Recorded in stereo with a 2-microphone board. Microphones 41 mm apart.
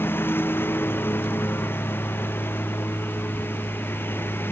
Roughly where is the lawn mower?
Left.